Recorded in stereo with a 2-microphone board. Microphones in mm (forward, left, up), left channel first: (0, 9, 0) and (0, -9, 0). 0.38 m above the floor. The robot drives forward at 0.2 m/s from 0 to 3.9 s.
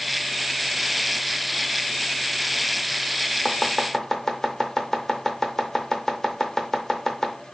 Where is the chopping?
20° left (ahead or behind), 0.5 m.